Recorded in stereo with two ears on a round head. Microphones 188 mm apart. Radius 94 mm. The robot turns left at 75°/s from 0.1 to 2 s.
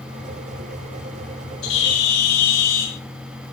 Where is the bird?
75° left (ahead or behind), 7.5 m; by 3.0 s 45° left (ahead or behind), 7.5 m.